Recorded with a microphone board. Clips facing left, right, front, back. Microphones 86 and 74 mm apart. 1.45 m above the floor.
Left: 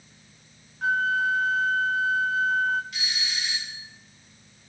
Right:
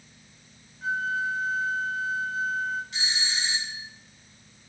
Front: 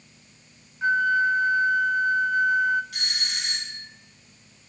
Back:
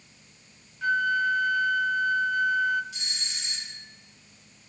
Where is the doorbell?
25° right, 3 m.